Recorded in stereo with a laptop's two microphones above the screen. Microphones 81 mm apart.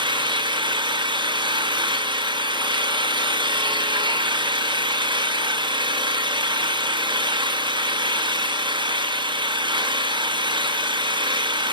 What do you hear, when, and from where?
0.0 s an engine running: 75° right (ahead or behind), 0.9 m